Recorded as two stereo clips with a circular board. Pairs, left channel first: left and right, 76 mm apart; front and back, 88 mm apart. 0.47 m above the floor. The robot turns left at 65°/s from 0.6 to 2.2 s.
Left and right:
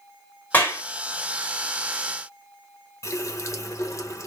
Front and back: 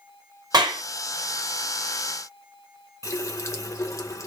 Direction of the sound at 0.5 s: 155° left.